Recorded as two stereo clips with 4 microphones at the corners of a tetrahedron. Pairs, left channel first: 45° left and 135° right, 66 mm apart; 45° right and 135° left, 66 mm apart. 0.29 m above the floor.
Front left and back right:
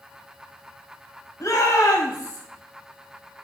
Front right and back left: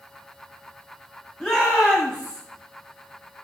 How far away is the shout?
About 1.4 m.